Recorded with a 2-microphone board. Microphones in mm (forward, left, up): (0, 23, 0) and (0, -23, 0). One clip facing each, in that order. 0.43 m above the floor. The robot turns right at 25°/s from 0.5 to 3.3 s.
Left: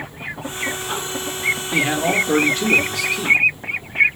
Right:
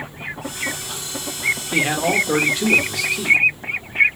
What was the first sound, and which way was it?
A man speaking, 10° right (ahead or behind).